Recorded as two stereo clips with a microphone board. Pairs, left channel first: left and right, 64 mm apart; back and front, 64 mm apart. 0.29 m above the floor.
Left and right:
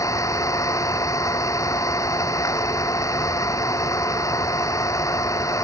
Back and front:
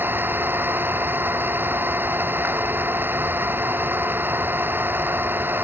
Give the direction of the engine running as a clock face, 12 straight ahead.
10 o'clock.